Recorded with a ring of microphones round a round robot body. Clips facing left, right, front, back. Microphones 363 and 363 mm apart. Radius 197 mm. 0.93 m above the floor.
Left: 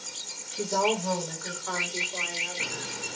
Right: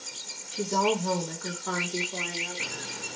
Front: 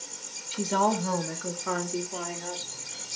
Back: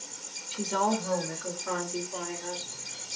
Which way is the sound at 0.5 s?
15° right.